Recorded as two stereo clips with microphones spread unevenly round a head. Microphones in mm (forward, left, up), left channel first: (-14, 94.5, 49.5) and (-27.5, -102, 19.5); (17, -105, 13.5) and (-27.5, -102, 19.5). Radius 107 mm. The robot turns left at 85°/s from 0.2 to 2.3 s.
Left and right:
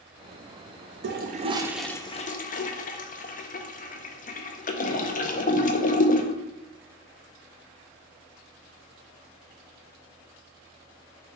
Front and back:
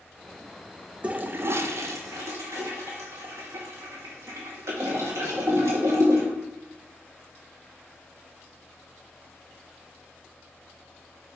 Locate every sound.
1.0 s a toilet flushing: 115° right, 0.6 m; by 6.3 s 135° left, 0.6 m